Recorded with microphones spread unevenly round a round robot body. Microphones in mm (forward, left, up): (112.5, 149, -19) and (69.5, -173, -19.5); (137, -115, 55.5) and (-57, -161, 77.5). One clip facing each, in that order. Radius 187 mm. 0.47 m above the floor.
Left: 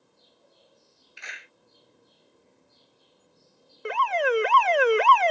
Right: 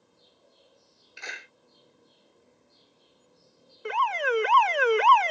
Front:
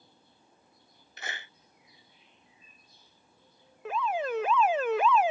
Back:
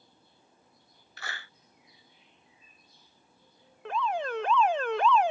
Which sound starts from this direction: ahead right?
A clap, at 1.2 s.